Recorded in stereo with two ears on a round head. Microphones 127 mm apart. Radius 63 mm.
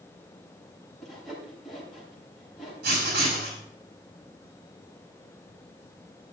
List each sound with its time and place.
1.0 s sawing: centre (ahead or behind), 6 m
2.8 s writing: 75° right (ahead or behind), 6 m